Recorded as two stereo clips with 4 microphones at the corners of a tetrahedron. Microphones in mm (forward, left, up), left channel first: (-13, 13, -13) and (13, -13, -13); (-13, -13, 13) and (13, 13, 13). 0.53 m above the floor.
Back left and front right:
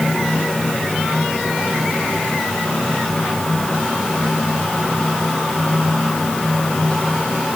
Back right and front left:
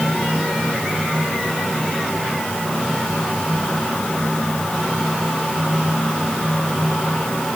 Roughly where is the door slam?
No door slam in this recording.